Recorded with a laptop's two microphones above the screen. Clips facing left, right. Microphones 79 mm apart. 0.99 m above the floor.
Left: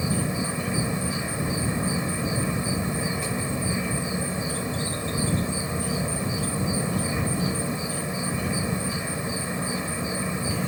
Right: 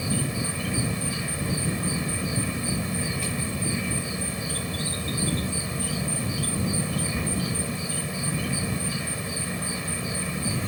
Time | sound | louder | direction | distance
0.0 | an insect | left 2 dB | 25° left (ahead or behind) | ?